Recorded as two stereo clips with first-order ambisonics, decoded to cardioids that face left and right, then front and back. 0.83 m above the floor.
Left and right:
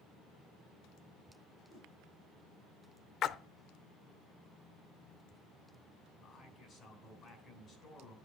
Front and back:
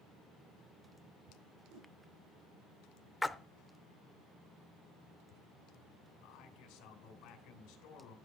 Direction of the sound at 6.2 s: 25° left.